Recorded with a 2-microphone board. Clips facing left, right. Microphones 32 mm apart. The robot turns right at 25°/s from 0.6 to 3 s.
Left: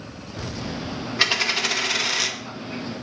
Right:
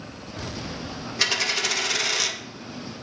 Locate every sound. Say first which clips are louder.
1.2 s a dropped coin: left 2 dB; 20° left (ahead or behind), 0.9 m; by 2.4 s 5° left (ahead or behind), 0.9 m